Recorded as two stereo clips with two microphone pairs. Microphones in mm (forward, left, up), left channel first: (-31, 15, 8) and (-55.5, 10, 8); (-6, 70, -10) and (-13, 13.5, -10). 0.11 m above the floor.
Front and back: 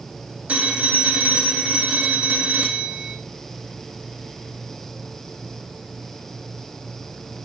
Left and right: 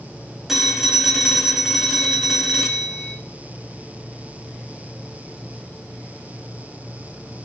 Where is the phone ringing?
Straight behind, 4 m.